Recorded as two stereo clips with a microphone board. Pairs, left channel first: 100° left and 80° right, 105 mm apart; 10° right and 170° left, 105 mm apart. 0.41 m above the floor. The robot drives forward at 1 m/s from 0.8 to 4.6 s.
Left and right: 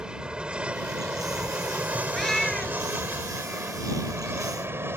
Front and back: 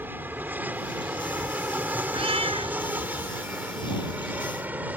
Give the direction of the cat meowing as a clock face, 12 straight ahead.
6 o'clock.